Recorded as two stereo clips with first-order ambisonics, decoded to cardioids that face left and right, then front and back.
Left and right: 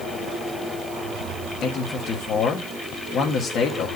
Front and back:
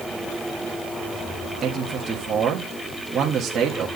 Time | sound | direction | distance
1.6 | a man speaking | 130° left | 1.4 m